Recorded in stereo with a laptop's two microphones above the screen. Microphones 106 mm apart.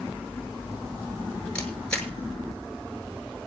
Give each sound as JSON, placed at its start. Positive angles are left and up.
{"t": 1.6, "sound": "a camera shutter", "side_deg": 10, "distance_m": 7.0}